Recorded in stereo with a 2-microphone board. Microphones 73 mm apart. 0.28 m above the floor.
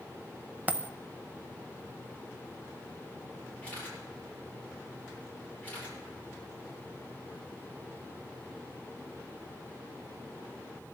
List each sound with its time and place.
0.7 s a dropped coin: 25° right (ahead or behind), 0.6 m
3.6 s a camera shutter: 20° left (ahead or behind), 8.5 m